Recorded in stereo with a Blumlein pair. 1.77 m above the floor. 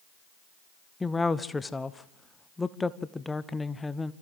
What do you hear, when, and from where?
1.0 s a woman speaking: 10° left, 0.7 m